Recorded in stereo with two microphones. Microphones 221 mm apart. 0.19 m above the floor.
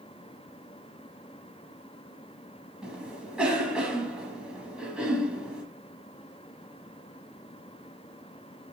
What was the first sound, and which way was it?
A cough, 5° right (ahead or behind).